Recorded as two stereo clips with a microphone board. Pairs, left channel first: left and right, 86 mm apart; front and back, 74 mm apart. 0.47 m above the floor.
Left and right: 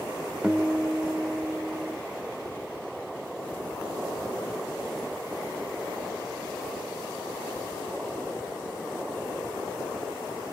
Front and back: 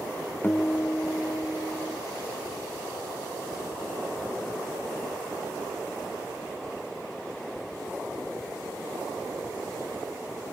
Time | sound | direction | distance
0.4 | a guitar | 20° right | 0.7 m